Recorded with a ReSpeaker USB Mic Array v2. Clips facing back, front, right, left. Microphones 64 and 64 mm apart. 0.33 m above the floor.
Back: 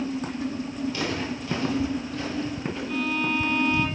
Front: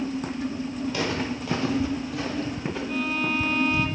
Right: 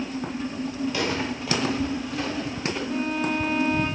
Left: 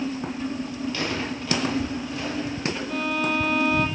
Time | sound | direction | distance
0.9 | footsteps | 15° right | 7 m
2.9 | a violin | 80° left | 4.5 m